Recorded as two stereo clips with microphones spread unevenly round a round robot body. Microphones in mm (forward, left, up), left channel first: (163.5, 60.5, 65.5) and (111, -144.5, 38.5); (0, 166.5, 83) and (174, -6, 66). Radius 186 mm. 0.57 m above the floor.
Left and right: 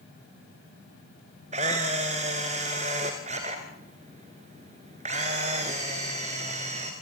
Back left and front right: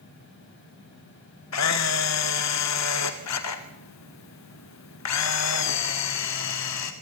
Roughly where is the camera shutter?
Behind.